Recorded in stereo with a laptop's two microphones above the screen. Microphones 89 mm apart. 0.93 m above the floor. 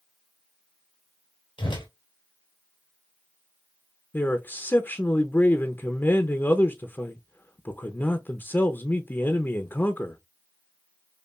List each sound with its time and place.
1.6 s a whoosh: 70° left (ahead or behind), 2 m
4.1 s a man speaking: 25° left (ahead or behind), 0.5 m